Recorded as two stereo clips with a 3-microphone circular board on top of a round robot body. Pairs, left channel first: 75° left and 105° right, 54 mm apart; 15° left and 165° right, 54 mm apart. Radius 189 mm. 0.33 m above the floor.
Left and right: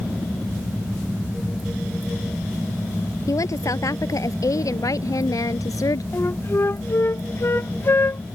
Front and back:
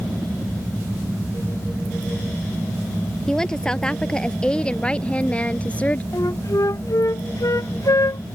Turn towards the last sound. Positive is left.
turn(degrees=30)